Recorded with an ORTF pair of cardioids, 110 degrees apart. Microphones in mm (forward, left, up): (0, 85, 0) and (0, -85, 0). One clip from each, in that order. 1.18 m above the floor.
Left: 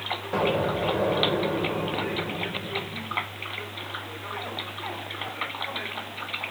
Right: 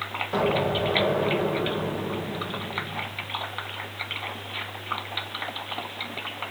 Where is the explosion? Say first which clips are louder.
Right 1 dB; 10° left, 4.5 m.